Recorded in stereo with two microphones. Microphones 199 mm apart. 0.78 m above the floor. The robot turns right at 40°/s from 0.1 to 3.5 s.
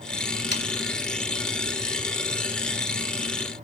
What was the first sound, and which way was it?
Sawing, 60° left (ahead or behind).